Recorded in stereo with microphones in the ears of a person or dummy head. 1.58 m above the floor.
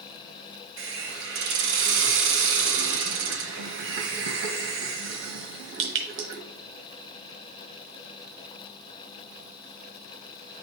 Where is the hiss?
65° right (ahead or behind), 1.2 m.